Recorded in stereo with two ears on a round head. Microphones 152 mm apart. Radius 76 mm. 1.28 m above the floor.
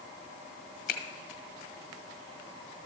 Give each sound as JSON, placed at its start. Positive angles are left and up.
{"t": 0.9, "sound": "a finger snap", "side_deg": 55, "distance_m": 1.2}